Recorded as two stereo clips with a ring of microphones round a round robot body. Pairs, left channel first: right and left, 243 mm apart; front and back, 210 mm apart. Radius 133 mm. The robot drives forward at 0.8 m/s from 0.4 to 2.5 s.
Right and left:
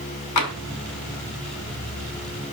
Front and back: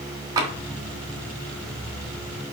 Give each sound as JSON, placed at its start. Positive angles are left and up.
{"t": 0.4, "sound": "tapping", "azimuth_deg": -105, "distance_m": 1.3}